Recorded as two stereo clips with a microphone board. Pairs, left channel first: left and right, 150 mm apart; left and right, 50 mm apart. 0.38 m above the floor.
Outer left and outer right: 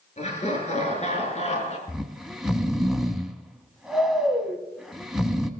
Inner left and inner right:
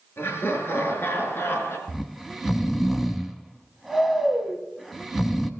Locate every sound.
0.2 s laughter: 45° left (ahead or behind), 5 m; by 1.8 s 50° left (ahead or behind), 4 m
1.9 s snoring: centre (ahead or behind), 1.1 m